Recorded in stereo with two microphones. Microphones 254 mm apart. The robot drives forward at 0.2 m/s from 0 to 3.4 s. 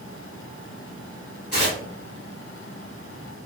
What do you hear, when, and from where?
1.5 s tearing paper: 40° left (ahead or behind), 1.8 m